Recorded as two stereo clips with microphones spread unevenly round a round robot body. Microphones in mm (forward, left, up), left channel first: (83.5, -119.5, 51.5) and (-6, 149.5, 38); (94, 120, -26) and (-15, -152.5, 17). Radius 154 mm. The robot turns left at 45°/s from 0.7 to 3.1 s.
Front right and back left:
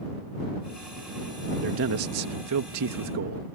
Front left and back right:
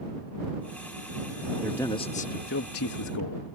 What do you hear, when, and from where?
1.6 s a man speaking: 155° left; by 3.5 s 90° left